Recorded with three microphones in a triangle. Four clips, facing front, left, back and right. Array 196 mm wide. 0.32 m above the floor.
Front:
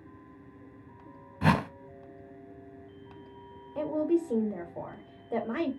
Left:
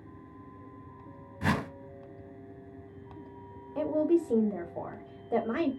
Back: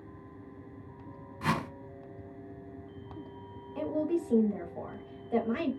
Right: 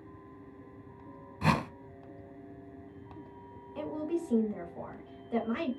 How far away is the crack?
No crack in this recording.